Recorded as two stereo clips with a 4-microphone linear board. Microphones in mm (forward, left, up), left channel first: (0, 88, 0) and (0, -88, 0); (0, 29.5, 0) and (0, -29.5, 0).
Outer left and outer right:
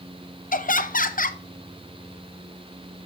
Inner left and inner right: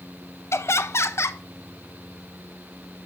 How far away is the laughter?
About 0.7 m.